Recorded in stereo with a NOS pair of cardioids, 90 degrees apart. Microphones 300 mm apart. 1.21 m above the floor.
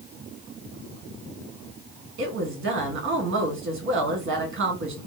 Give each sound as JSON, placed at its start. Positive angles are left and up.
{"t": 2.2, "sound": "a woman speaking", "azimuth_deg": -45, "distance_m": 1.4}